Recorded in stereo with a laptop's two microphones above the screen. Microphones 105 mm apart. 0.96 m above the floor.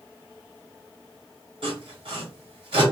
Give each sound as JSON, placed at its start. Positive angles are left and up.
{"t": 1.6, "sound": "sawing", "side_deg": -60, "distance_m": 1.9}